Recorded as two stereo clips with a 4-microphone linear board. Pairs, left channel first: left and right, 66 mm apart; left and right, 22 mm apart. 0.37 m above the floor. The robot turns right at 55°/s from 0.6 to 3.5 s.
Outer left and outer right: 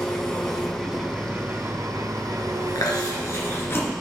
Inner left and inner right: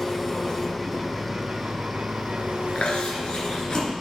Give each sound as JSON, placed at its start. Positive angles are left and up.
{"t": 0.0, "sound": "an engine running", "azimuth_deg": 170, "distance_m": 1.9}
{"t": 2.8, "sound": "chewing", "side_deg": 80, "distance_m": 2.0}